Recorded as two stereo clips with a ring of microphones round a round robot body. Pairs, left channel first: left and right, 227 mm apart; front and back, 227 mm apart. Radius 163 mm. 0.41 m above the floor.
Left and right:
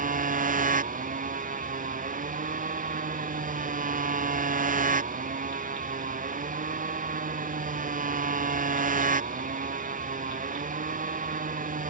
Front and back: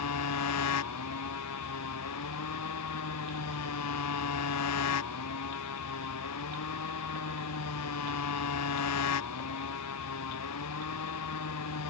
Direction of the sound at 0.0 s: 35° right.